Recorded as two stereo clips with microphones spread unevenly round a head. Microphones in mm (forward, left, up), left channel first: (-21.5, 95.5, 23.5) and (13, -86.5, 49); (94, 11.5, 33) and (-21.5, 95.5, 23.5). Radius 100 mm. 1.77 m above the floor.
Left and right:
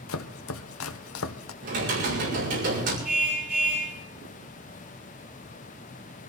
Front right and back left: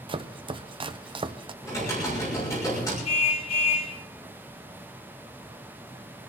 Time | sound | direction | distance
0.1 | chopping | 90° left | 0.8 m
1.6 | typing on a keyboard | 110° right | 5.5 m
3.0 | a car horn | 5° left | 6 m